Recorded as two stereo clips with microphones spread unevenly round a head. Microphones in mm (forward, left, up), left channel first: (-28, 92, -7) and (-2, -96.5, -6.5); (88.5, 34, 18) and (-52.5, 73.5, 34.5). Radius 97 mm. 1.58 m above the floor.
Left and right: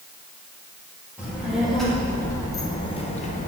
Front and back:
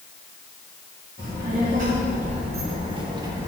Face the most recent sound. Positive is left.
turn(degrees=115)